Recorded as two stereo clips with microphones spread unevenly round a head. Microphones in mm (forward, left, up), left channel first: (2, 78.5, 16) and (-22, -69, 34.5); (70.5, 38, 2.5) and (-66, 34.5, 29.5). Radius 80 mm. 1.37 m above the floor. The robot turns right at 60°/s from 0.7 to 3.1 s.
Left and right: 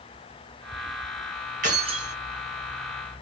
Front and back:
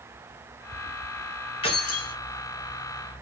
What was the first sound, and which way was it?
Keys jangling, 60° right.